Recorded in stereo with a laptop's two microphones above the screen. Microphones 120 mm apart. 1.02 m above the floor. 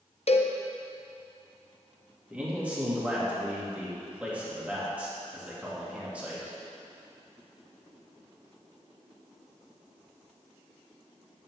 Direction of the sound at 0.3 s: 60° left (ahead or behind).